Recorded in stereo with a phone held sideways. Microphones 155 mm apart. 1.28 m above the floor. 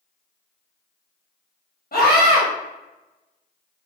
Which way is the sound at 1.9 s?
65° left (ahead or behind).